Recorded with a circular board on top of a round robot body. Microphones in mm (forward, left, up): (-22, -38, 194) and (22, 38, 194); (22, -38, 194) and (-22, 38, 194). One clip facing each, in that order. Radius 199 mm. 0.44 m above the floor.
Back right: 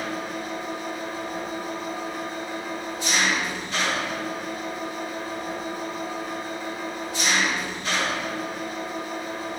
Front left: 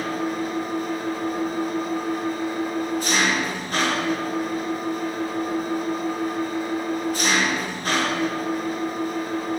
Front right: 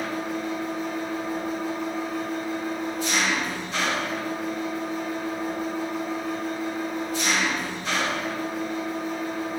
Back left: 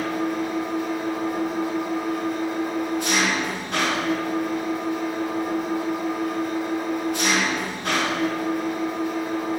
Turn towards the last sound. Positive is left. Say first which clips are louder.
# front left 5 dB, back left 4 dB
turn(degrees=100)